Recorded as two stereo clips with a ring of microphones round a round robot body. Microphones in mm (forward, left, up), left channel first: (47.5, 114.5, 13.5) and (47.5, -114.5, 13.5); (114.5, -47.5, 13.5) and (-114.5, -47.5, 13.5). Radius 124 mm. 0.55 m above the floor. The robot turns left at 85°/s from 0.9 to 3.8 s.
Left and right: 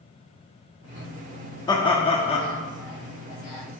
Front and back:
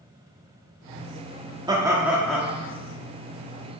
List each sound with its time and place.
1.7 s laughter: 135° left, 0.7 m; by 2.5 s 65° left, 0.7 m